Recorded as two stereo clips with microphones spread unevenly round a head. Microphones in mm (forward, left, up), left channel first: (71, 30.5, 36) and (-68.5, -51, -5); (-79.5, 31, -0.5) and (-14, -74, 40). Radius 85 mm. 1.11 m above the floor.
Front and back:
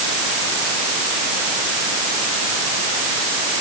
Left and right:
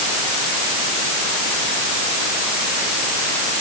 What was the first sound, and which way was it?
Only background noise.